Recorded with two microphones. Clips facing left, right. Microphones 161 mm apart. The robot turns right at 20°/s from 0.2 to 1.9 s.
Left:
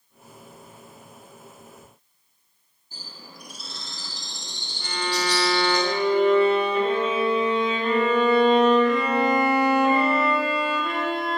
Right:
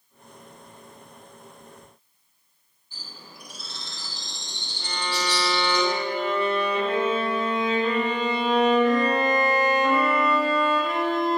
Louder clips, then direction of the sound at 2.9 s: Left 1 dB; 40° left (ahead or behind).